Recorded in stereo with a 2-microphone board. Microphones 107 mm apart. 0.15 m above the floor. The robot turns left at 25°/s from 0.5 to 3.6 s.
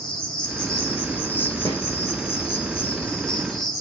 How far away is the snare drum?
About 2 m.